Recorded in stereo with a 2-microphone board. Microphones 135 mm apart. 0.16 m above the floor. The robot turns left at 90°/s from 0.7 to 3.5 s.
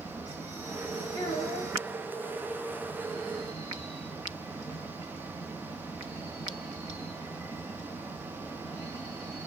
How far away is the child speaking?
About 1.2 m.